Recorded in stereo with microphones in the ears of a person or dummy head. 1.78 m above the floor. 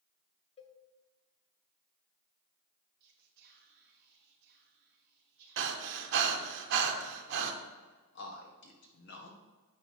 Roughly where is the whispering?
Right.